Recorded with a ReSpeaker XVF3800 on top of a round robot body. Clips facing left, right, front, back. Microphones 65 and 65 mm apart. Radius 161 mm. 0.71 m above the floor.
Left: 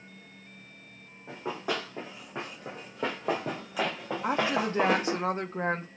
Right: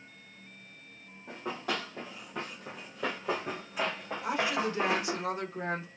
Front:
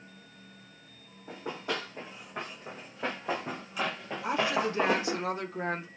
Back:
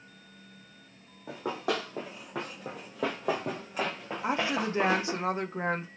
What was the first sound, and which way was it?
Running footsteps, 175° left.